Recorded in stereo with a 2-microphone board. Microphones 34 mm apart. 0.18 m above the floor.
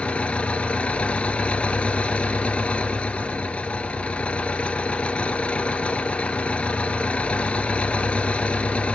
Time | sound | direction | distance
0.0 | an engine running | 35° left (ahead or behind) | 1.2 m